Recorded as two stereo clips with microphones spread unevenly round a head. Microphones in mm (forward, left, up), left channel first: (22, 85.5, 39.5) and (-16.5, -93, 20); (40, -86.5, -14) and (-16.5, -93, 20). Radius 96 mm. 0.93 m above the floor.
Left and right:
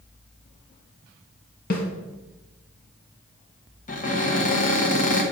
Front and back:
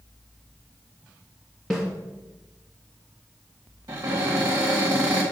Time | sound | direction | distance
1.7 | a snare drum | 110° left | 1.4 m
3.9 | a cupboard door | 120° left | 1.4 m